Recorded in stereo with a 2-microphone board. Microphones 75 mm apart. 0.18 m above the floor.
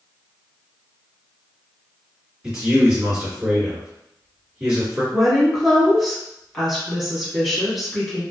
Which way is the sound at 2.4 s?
20° right (ahead or behind).